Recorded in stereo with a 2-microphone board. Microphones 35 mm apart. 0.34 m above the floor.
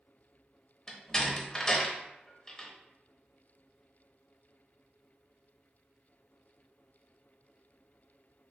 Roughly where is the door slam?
Centre.